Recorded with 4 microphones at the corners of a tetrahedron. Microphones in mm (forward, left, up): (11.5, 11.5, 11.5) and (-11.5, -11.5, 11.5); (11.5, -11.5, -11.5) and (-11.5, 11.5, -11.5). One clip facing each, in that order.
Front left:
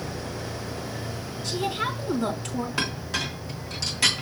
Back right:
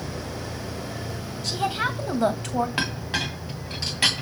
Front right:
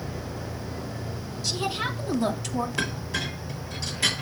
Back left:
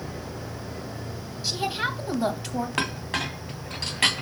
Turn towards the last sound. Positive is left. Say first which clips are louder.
# back right 1 dB, back left 1 dB
turn(degrees=160)